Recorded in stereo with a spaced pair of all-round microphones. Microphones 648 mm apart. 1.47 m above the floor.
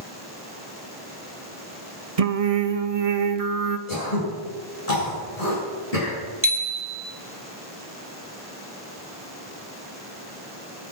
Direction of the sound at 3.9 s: 65° left (ahead or behind).